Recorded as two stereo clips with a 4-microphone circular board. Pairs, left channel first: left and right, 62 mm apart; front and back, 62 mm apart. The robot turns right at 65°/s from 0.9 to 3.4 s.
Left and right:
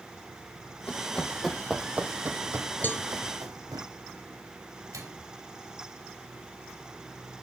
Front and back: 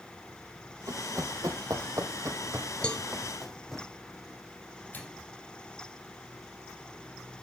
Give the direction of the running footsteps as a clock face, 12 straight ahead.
7 o'clock.